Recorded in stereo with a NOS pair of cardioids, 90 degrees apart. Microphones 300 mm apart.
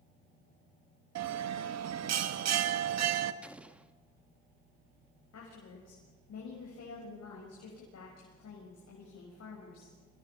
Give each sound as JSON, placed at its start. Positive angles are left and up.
{"t": 1.1, "sound": "a bell", "azimuth_deg": -60, "distance_m": 1.4}
{"t": 3.4, "sound": "an explosion", "azimuth_deg": -5, "distance_m": 1.2}
{"t": 5.3, "sound": "a woman speaking", "azimuth_deg": 55, "distance_m": 6.0}